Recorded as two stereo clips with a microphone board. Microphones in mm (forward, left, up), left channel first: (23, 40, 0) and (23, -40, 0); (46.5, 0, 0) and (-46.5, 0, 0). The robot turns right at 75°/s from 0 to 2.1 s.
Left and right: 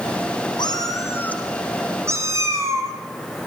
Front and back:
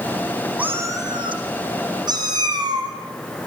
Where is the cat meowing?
105° left, 3.5 m; by 2.9 s 140° right, 3.5 m.